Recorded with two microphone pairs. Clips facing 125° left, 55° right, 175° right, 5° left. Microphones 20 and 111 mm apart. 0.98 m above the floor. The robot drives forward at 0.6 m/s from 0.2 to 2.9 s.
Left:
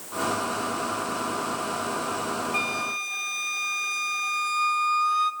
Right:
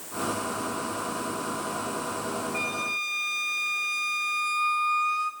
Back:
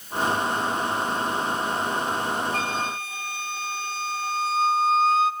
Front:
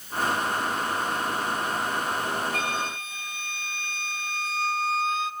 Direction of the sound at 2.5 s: 130° left.